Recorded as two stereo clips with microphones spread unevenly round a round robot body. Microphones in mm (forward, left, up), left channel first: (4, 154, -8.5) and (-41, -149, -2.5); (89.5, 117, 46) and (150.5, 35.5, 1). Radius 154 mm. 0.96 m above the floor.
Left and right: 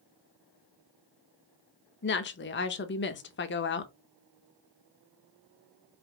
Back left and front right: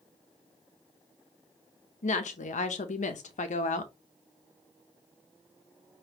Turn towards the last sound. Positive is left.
turn(degrees=135)